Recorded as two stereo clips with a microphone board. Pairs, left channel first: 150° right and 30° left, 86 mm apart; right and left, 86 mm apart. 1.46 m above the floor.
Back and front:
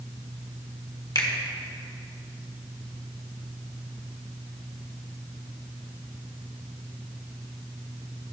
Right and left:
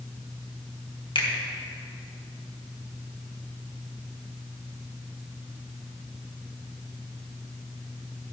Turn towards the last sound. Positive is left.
turn(degrees=-110)